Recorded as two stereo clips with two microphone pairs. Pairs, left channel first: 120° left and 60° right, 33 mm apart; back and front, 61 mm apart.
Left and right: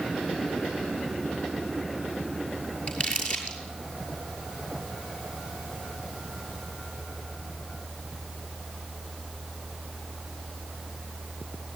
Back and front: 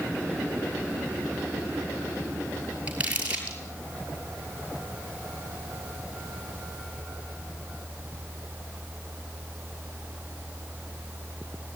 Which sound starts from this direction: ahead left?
Crumpling, at 2.9 s.